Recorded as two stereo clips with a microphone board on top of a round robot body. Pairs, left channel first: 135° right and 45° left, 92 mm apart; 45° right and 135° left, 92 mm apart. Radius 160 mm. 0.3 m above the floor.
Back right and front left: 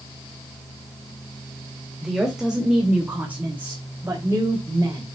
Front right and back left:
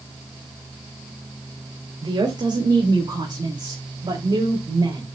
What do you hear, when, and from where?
2.0 s a woman speaking: 135° left, 2 m; by 5.0 s 100° left, 3 m